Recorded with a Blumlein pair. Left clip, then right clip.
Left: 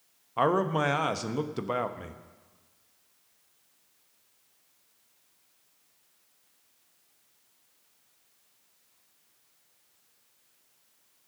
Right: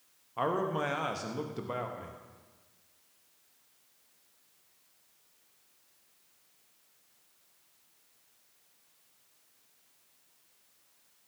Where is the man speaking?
70° left, 1.0 m.